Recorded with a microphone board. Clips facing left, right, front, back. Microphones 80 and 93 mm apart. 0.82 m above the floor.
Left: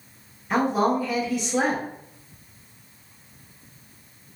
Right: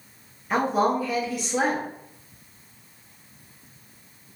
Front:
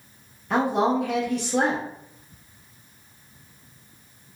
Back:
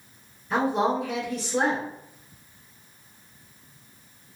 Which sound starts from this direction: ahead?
A woman speaking, at 0.5 s.